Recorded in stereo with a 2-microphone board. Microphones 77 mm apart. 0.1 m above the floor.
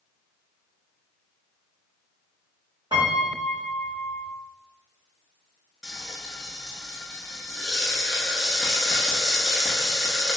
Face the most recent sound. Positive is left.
turn(degrees=0)  # may be behind; listen again after turning